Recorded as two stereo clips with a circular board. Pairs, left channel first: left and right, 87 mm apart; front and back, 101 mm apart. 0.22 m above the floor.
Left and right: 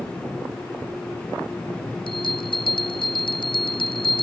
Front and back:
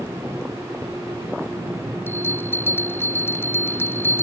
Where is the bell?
70° left.